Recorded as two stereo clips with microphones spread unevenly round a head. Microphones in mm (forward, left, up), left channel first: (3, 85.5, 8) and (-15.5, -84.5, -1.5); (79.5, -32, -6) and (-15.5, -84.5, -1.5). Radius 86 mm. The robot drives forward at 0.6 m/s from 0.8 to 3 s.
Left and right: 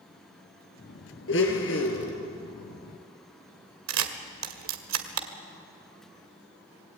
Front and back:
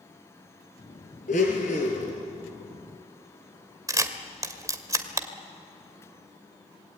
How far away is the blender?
About 4 m.